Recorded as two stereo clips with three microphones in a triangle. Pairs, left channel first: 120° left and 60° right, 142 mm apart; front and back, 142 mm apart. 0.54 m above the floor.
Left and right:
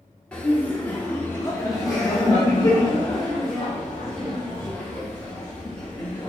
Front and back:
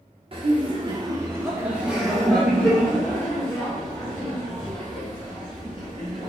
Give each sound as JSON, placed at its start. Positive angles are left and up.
{"t": 0.3, "sound": "laughter", "azimuth_deg": -160, "distance_m": 1.1}